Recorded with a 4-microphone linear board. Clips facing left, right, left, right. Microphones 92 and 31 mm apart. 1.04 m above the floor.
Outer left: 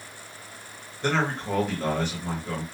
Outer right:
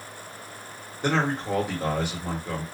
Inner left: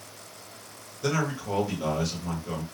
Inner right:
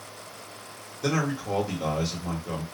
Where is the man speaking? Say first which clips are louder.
Outer right 1 dB, inner right 1 dB; 10° right (ahead or behind), 1.3 m.